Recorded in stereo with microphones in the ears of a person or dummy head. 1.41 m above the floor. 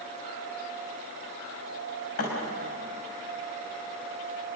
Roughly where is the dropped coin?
No dropped coin in this recording.